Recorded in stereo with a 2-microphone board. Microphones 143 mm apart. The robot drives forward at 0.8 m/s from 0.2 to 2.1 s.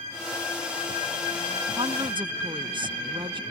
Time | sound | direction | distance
1.8 | a woman speaking | 40° right (ahead or behind) | ?